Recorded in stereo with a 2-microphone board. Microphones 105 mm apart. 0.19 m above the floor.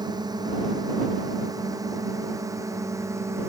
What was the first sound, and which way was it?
A drone, 40° right (ahead or behind).